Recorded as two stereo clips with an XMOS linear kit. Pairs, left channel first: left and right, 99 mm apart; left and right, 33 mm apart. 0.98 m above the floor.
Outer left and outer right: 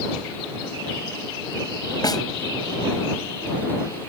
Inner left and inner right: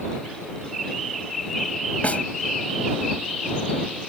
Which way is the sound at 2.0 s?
40° left (ahead or behind).